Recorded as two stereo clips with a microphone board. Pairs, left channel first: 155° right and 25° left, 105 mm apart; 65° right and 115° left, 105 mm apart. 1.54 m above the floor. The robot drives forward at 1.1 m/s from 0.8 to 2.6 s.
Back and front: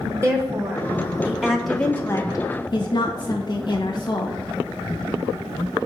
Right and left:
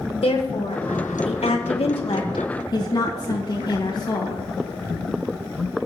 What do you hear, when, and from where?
0.2 s a woman speaking: 40° right, 1.9 m; by 4.4 s 115° right, 1.4 m